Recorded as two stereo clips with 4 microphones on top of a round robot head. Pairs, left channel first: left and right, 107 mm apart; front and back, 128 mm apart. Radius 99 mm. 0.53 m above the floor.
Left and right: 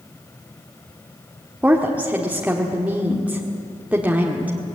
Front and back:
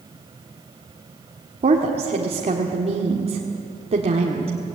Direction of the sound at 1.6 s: 165° right.